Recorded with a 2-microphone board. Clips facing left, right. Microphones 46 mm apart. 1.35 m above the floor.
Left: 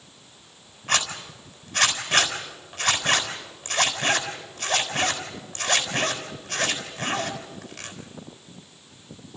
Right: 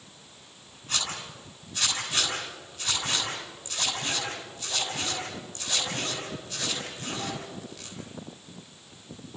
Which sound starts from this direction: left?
A zipper, at 0.9 s.